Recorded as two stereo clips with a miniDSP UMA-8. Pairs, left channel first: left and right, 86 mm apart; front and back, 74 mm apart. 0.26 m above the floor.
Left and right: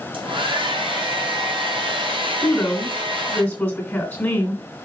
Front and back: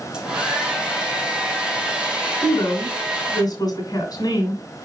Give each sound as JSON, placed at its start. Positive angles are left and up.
{"t": 0.1, "sound": "a hair dryer", "azimuth_deg": -100, "distance_m": 2.5}
{"t": 2.4, "sound": "a woman speaking", "azimuth_deg": 25, "distance_m": 2.5}